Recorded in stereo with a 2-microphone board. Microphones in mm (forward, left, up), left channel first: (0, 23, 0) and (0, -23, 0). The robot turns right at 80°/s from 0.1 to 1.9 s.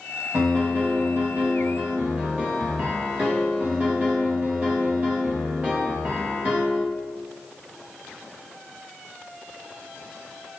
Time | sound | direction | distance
0.3 | a piano | 155° right | 2.5 m